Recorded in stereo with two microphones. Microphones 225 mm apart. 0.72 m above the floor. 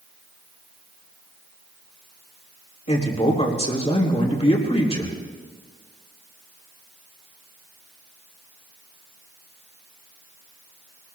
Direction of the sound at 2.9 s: 30° left (ahead or behind).